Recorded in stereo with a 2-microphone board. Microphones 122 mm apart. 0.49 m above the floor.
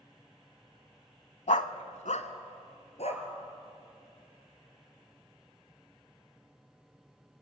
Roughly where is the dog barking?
Left.